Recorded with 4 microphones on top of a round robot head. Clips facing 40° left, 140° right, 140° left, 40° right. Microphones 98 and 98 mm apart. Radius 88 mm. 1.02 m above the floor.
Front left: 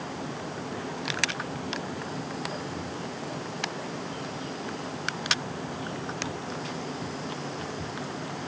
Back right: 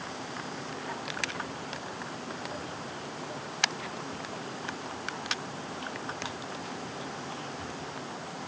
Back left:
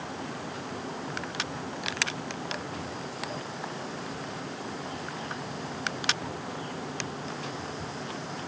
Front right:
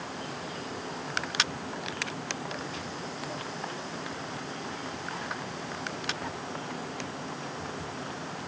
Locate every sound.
Only background noise.